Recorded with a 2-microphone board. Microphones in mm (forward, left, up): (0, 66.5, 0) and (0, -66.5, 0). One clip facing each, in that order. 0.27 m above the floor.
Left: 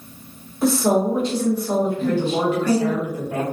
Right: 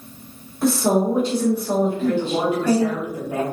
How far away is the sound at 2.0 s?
About 2.0 m.